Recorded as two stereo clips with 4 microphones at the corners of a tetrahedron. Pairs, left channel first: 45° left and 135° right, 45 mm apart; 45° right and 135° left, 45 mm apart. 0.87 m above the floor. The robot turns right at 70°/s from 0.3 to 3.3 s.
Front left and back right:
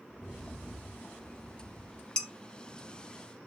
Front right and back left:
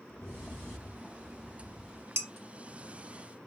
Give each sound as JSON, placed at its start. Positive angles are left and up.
{"t": 0.1, "sound": "a rattle", "azimuth_deg": -30, "distance_m": 0.6}
{"t": 2.2, "sound": "dishes clattering", "azimuth_deg": 115, "distance_m": 0.6}